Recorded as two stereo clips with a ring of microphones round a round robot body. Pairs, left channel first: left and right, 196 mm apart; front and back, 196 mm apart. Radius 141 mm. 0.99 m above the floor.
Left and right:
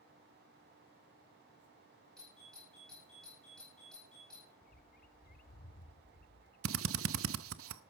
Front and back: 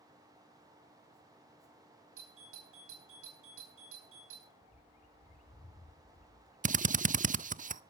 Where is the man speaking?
I don't hear a man speaking.